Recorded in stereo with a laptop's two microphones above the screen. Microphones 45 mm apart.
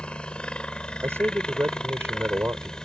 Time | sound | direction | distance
0.0 | a helicopter | 20° left (ahead or behind) | ?
1.0 | a man speaking | 75° right (ahead or behind) | ?